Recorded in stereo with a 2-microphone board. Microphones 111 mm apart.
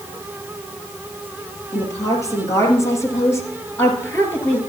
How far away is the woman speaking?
About 4 m.